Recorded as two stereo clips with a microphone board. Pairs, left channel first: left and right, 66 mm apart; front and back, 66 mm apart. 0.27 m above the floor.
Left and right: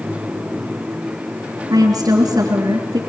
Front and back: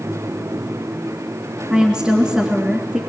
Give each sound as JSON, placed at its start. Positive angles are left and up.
{"t": 1.7, "sound": "a woman speaking", "azimuth_deg": -105, "distance_m": 3.0}